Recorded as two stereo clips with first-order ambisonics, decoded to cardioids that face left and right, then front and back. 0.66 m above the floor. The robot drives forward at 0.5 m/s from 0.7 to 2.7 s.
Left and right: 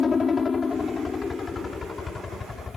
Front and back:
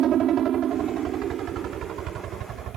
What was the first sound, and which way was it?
A helicopter, 150° left.